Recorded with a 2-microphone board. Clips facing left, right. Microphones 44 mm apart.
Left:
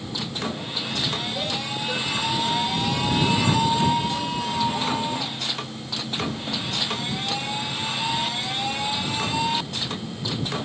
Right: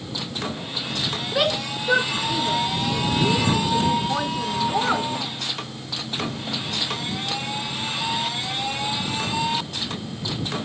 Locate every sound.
1.3 s a shout: 70° right (ahead or behind); by 5.1 s 55° right (ahead or behind)